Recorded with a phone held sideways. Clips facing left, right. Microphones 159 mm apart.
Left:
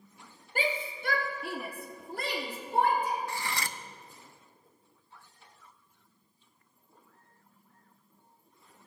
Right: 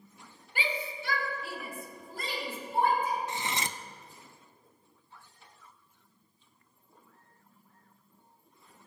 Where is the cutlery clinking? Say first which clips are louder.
Right 1 dB; 20° right (ahead or behind), 0.5 m.